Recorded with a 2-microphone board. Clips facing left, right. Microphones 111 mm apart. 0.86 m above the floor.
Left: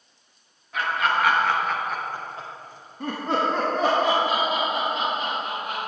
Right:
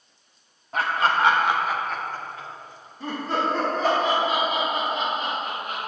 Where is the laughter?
40° right (ahead or behind), 1.2 m; by 5.8 s 75° left (ahead or behind), 3 m.